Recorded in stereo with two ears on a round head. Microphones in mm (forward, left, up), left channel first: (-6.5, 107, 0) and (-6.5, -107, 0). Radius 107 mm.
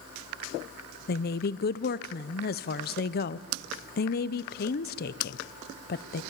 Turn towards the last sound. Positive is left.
turn(degrees=40)  # may be behind; listen again after turning